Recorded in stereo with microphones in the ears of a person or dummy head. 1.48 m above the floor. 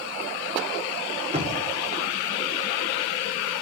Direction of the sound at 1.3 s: 25° right (ahead or behind).